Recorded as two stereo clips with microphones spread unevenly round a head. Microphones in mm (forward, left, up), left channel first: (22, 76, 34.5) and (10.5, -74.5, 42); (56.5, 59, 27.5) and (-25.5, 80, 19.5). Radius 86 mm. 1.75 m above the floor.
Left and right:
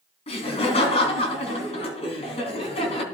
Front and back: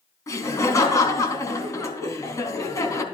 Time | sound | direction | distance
0.3 | laughter | 35° left | 4 m